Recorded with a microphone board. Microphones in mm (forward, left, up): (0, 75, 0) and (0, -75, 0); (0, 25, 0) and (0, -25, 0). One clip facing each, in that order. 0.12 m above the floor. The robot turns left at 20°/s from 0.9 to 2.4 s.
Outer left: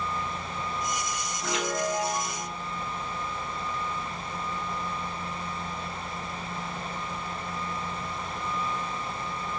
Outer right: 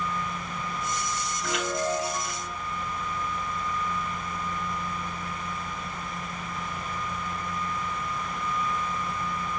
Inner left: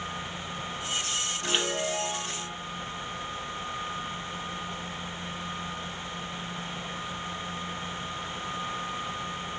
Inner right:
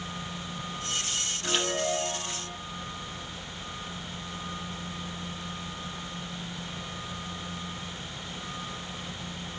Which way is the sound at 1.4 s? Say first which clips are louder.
Even, inner right 1 dB; 25° left (ahead or behind).